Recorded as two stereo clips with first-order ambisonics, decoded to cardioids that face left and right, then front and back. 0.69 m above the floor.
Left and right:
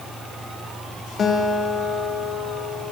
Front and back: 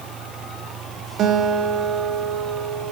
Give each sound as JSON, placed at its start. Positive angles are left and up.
{"t": 1.2, "sound": "a guitar", "azimuth_deg": 145, "distance_m": 0.8}